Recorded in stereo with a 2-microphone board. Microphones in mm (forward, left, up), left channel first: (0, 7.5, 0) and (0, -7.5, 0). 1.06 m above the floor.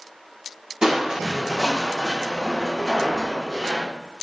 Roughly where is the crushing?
Right.